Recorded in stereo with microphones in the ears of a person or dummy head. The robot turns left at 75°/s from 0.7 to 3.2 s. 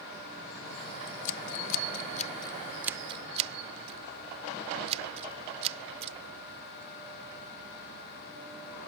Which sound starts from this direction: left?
Scissors, at 1.1 s.